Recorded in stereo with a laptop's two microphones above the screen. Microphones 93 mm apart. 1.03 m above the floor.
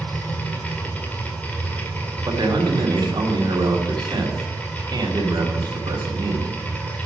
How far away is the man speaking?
About 2 m.